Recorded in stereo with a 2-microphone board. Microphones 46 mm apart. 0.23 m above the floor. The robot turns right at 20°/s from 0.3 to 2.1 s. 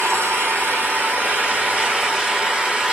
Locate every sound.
0.0 s an engine running: 45° right, 3.5 m; by 3.0 s 10° right, 3.5 m